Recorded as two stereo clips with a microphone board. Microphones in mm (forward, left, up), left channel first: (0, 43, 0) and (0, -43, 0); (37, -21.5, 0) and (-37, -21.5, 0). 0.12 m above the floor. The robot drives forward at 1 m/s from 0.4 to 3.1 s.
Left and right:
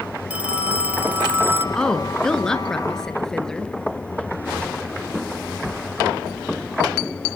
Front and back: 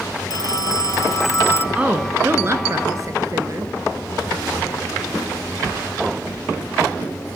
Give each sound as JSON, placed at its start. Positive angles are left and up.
{"t": 0.3, "sound": "a phone ringing", "azimuth_deg": -15, "distance_m": 2.5}
{"t": 1.8, "sound": "a woman speaking", "azimuth_deg": 150, "distance_m": 1.6}